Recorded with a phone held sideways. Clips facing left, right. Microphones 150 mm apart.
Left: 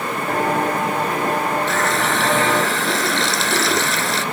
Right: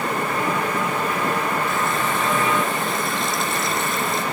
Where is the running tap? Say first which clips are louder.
Left 3 dB; 90° left.